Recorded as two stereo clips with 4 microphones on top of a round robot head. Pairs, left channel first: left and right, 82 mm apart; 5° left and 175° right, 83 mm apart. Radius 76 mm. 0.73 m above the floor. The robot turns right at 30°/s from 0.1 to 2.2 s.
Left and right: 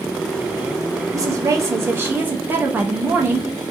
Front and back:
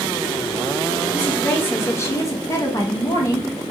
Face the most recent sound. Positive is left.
turn(degrees=-30)